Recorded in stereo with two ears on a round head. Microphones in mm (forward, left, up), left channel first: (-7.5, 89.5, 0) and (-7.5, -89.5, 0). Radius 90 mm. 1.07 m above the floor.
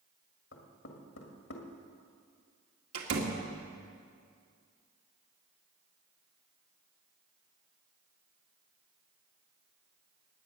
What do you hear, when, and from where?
0.5 s knocking: 70° left (ahead or behind), 2.0 m
2.9 s a door slam: 85° right, 2 m